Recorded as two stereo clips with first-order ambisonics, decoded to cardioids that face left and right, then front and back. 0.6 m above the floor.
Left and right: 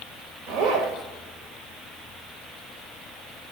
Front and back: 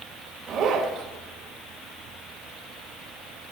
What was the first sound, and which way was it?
A zipper, 120° right.